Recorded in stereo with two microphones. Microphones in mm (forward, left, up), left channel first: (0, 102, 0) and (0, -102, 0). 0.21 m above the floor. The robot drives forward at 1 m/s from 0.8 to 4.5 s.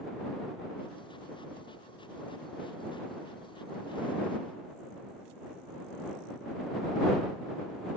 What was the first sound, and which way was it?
Only background noise.